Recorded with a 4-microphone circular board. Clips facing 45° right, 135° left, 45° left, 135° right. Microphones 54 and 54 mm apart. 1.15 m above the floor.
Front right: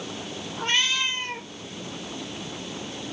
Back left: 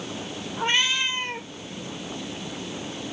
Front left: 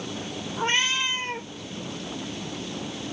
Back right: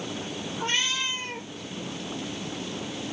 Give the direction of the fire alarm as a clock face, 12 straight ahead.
No fire alarm in this recording.